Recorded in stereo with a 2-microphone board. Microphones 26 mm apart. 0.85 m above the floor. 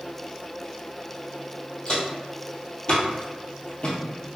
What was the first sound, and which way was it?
Footsteps, 40° left (ahead or behind).